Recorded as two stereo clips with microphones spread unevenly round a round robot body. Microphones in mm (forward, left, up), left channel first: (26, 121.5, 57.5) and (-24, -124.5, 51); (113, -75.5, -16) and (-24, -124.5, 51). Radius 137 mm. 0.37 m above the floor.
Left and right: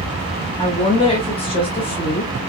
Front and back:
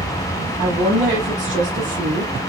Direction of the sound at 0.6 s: 140° left.